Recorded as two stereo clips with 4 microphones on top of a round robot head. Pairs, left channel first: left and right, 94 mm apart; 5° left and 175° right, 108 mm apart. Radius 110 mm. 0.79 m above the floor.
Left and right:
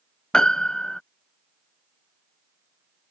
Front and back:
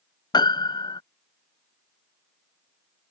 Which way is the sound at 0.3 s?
10° left.